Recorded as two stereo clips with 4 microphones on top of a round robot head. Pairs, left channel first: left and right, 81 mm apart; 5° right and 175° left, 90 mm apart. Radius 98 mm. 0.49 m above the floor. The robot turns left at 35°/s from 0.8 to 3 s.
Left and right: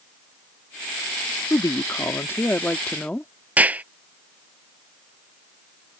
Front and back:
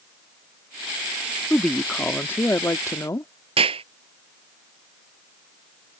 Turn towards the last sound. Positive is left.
turn(degrees=-160)